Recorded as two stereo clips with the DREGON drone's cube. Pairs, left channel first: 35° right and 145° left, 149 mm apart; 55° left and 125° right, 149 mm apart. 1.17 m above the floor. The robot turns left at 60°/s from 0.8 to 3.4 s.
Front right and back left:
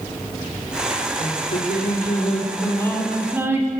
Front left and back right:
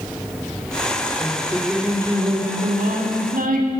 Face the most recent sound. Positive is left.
turn(degrees=-140)